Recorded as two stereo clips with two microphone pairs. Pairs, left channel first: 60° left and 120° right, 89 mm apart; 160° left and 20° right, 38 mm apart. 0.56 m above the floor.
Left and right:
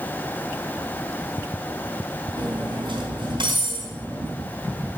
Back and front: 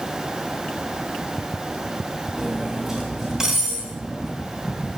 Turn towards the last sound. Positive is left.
turn(degrees=-95)